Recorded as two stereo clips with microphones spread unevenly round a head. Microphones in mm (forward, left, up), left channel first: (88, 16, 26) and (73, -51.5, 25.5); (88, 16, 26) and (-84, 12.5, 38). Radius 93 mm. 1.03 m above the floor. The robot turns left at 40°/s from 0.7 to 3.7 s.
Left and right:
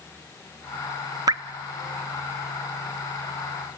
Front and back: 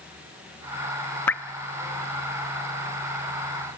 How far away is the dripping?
About 0.6 m.